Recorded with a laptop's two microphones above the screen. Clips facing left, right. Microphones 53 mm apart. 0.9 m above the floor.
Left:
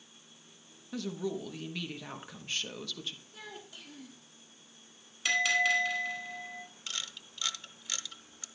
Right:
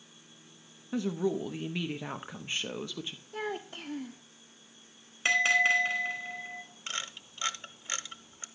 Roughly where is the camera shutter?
Right.